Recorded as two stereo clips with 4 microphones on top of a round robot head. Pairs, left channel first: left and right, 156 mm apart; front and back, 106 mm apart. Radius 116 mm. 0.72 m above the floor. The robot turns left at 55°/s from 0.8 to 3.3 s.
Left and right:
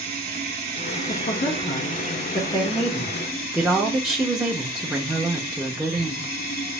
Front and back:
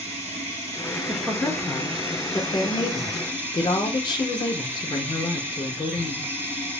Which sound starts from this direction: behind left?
A woman speaking, at 1.1 s.